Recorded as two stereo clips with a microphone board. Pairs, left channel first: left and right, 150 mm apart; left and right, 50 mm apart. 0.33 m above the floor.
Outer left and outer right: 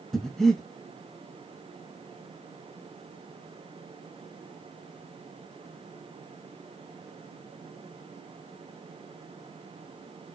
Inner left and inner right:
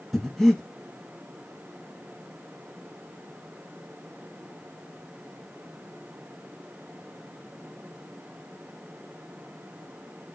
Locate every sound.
0.1 s breathing: 5° left (ahead or behind), 0.6 m